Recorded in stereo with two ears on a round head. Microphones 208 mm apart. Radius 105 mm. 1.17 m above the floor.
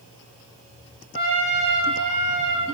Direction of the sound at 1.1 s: 30° right (ahead or behind).